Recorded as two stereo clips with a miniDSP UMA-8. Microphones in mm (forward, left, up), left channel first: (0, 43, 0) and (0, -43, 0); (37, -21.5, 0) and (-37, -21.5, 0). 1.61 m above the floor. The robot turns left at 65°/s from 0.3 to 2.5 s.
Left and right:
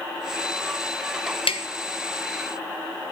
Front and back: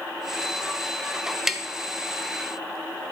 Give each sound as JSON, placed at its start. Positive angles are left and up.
{"t": 1.5, "sound": "tapping", "azimuth_deg": 95, "distance_m": 0.7}